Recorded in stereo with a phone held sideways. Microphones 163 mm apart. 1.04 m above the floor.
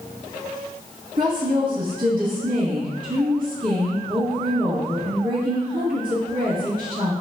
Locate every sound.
1.2 s a woman speaking: 65° right (ahead or behind), 1.6 m